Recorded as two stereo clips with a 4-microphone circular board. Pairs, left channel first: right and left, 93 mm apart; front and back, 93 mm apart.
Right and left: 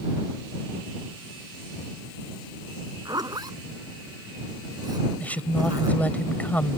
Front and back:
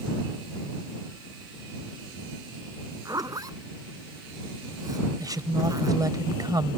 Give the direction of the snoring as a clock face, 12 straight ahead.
I don't hear snoring.